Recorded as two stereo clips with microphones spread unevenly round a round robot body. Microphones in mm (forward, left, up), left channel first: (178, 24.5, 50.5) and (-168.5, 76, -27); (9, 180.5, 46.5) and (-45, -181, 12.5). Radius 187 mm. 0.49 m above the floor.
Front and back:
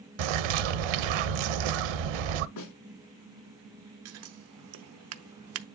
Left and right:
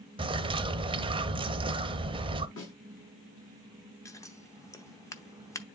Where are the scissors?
165° left, 0.7 m.